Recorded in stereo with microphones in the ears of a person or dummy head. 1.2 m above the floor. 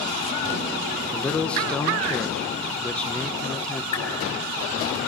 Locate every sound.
1.1 s a man speaking: 5° left (ahead or behind), 1.1 m
3.9 s a whoosh: 35° left (ahead or behind), 4 m